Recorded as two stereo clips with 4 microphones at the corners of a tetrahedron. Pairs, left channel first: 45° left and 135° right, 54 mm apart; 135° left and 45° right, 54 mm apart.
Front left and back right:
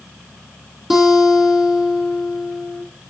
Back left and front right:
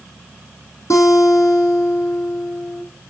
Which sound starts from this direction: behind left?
A guitar, at 0.9 s.